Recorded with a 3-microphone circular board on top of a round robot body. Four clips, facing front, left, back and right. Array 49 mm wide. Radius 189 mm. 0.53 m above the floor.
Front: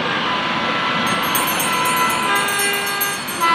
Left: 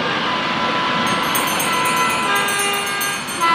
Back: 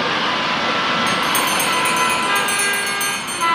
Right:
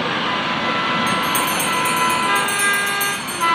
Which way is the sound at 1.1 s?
170° left.